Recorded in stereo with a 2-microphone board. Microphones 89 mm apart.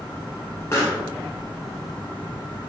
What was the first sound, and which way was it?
A pop, 30° left (ahead or behind).